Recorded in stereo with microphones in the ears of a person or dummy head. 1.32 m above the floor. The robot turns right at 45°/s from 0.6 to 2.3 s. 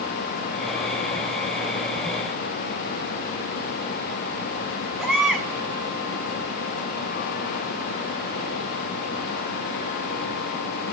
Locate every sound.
5.0 s a baby crying: 5° right (ahead or behind), 1.8 m